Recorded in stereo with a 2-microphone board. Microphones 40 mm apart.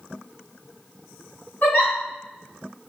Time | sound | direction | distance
1.6 | a giggle | 45° left (ahead or behind) | 1.6 m